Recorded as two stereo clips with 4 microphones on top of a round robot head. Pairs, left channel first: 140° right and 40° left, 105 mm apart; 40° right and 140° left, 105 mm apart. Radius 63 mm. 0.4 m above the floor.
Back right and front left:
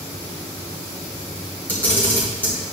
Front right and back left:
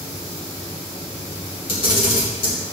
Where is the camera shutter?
65° right, 3 m.